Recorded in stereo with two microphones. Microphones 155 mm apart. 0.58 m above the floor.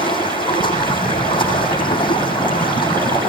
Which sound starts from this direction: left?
Running water, at 0.0 s.